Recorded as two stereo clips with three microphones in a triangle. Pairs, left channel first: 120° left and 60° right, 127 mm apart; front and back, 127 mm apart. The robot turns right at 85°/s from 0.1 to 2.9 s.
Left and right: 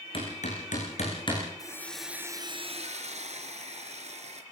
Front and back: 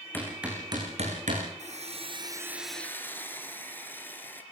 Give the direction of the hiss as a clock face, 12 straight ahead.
6 o'clock.